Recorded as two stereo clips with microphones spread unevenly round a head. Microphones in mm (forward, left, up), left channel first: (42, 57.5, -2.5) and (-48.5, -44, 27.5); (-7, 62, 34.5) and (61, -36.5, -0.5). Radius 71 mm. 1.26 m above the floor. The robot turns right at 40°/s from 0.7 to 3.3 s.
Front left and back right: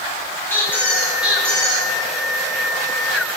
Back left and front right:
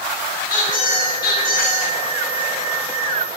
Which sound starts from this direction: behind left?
A squeak, at 0.5 s.